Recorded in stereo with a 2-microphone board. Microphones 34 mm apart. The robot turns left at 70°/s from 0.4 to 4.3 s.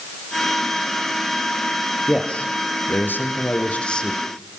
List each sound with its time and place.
2.1 s a man speaking: 165° left, 4.5 m; by 4.2 s 10° left, 4.5 m